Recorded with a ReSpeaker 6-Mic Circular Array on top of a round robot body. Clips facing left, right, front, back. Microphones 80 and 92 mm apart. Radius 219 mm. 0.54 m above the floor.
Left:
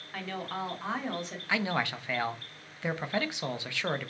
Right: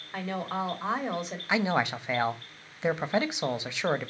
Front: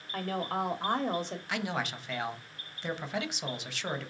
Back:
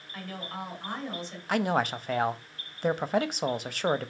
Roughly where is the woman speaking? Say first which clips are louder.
Right 4 dB, front 6 dB; ahead.